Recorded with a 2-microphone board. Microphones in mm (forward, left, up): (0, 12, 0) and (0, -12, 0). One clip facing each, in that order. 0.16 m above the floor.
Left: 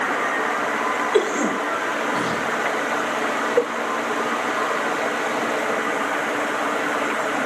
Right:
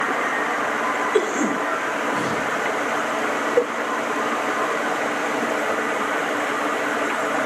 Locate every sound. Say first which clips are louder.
1.1 s a cough: left 2 dB; 45° left (ahead or behind), 6 m